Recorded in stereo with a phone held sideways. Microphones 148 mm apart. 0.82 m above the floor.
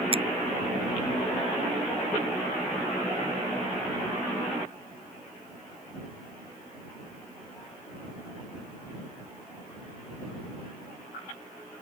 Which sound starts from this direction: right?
A finger snap, at 0.1 s.